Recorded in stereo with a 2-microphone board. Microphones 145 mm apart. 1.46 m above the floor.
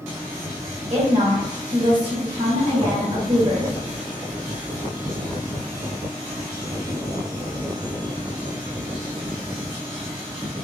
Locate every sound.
0.9 s a woman speaking: 45° right (ahead or behind), 2 m